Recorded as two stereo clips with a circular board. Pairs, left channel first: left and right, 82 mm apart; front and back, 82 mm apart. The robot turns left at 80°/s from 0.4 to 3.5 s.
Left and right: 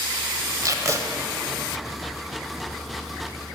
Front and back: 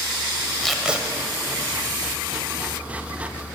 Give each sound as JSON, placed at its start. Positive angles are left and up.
{"t": 0.6, "sound": "tape being pulled", "azimuth_deg": -85, "distance_m": 1.1}